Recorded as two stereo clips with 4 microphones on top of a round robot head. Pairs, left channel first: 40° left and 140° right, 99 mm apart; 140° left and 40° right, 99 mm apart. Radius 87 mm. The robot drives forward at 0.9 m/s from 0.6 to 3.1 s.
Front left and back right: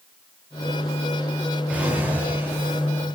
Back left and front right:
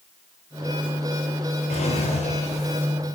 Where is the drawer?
140° left, 3.5 m; by 3.2 s 150° left, 4.5 m.